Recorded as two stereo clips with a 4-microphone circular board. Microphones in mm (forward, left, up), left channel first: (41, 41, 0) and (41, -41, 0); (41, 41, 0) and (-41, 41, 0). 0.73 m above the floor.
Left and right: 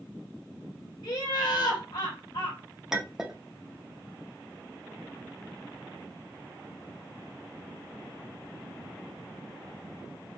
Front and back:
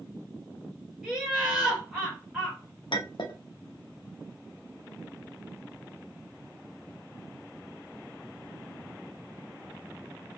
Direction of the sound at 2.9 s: 5° right.